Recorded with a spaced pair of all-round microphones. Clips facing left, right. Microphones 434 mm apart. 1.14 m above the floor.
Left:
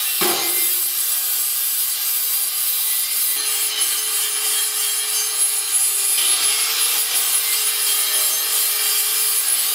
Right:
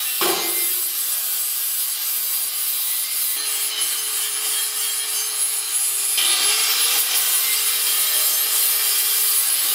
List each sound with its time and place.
0.2 s a snare drum: 40° left (ahead or behind), 7.5 m